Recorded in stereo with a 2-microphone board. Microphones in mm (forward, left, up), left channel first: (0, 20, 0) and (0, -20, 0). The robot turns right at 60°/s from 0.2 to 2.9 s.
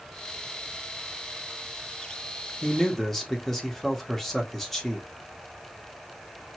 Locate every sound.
2.6 s a man speaking: 20° left (ahead or behind), 1.0 m; by 5.1 s 5° left (ahead or behind), 1.0 m